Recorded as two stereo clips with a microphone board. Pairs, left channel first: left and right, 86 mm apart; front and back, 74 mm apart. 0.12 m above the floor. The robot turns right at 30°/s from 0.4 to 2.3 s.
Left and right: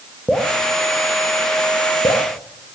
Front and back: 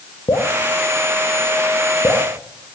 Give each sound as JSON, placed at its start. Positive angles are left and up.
{"t": 0.3, "sound": "dripping", "azimuth_deg": 0, "distance_m": 4.5}